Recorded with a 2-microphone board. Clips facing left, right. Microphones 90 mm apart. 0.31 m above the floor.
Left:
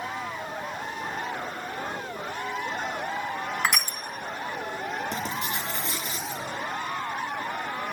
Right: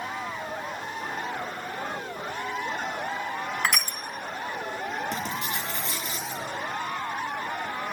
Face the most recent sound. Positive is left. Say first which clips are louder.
# even
turn(degrees=35)  # may be behind; listen again after turning